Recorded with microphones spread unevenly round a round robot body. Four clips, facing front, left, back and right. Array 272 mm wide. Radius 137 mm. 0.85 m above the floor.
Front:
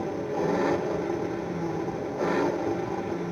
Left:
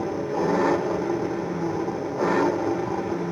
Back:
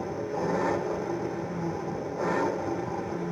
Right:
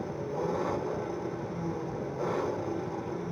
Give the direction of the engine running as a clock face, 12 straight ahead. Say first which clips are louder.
Left 8 dB, front 2 dB; 10 o'clock.